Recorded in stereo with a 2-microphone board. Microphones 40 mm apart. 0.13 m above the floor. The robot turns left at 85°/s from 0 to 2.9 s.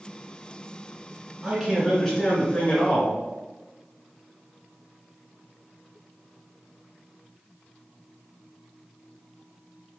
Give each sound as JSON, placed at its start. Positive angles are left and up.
{"t": 1.4, "sound": "a man speaking", "azimuth_deg": -160, "distance_m": 1.2}